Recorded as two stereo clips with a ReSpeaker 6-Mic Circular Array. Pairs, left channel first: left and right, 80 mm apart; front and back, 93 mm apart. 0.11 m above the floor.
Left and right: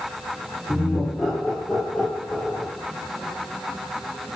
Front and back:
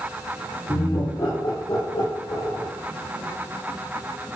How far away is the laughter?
About 2.5 m.